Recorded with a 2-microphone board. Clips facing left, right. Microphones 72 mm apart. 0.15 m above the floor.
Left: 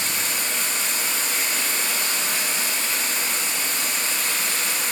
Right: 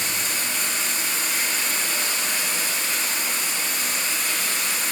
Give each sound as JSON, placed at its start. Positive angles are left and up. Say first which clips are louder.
{"t": 0.0, "sound": "running water", "louder": "even", "side_deg": 75, "distance_m": 1.7}